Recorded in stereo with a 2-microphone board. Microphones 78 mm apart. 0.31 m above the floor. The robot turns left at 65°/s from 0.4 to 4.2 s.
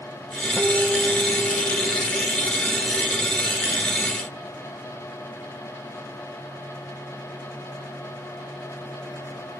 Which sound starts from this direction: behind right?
A guitar, at 0.6 s.